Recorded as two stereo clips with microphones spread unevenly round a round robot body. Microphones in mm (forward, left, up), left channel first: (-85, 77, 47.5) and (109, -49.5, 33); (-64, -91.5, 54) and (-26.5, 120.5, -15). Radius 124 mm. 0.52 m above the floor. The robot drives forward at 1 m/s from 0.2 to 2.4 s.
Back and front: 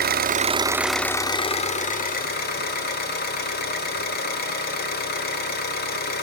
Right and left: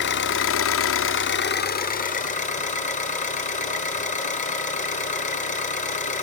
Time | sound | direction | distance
0.0 | an engine running | 55° right | 1.0 m